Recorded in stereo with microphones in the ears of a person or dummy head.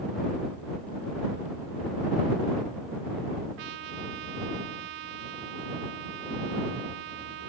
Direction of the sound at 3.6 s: 55° right (ahead or behind).